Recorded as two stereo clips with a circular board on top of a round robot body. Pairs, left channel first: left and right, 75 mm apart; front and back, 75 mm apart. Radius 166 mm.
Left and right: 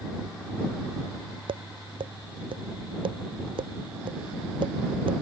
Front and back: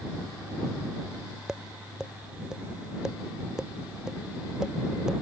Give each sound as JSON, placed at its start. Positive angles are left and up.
{"t": 1.5, "sound": "tapping", "azimuth_deg": -95}